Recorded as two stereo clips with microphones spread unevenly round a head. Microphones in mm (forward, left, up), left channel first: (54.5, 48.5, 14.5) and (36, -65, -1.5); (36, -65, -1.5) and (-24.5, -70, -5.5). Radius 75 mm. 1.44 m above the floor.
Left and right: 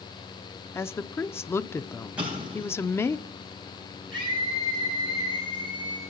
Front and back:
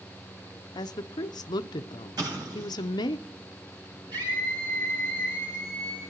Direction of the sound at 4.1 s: 165° left.